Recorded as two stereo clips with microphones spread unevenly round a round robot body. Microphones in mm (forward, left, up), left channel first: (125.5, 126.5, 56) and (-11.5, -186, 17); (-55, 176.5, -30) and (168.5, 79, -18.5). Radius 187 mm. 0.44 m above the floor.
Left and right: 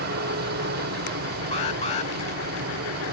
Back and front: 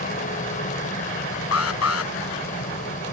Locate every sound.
0.0 s a helicopter: 155° right
1.5 s an alarm: 140° left